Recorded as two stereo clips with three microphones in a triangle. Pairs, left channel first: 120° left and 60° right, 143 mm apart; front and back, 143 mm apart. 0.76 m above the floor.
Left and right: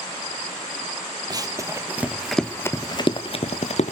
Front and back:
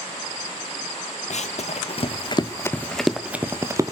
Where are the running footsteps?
5° right, 1.4 m; by 3.9 s 120° left, 1.3 m.